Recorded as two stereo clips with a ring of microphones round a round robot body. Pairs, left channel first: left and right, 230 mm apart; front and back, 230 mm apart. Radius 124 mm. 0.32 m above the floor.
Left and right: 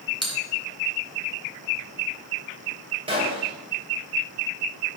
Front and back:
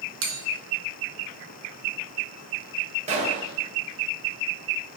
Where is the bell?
160° right, 2 m.